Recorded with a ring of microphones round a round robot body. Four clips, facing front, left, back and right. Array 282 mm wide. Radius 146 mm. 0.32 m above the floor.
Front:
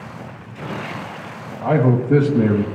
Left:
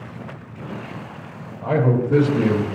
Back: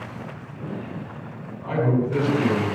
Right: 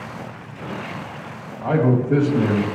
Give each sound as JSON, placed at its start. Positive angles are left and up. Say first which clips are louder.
{"t": 1.6, "sound": "a man speaking", "louder": "right 1 dB, front 5 dB", "azimuth_deg": -25, "distance_m": 2.5}